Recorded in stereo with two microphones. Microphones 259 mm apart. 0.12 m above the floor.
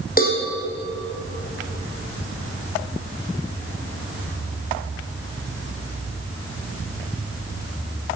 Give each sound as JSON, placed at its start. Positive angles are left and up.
{"t": 0.2, "sound": "a cowbell", "side_deg": 35, "distance_m": 3.5}